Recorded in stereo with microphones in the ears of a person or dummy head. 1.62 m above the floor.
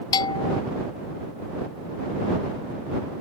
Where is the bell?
25° left (ahead or behind).